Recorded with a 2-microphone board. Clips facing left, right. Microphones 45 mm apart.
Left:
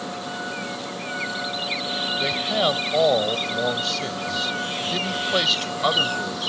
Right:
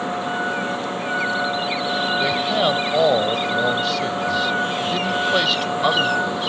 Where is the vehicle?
30° right (ahead or behind); by 6.5 s 25° right (ahead or behind).